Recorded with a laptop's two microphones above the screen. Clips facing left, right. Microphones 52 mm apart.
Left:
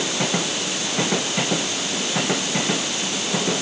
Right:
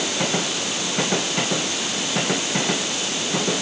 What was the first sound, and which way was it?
Only background noise.